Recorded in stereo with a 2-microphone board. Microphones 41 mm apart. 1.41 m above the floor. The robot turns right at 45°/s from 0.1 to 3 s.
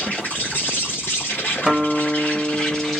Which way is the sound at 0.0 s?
45° left.